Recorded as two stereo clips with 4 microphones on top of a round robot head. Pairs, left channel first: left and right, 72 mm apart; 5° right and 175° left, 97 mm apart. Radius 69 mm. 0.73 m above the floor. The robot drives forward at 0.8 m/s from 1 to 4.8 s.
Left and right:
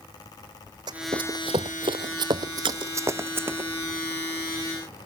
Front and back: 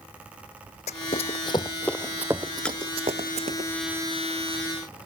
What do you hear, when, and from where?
0.9 s running footsteps: 35° right; by 3.6 s 150° right
2.6 s a splash: 85° right; by 2.9 s 90° right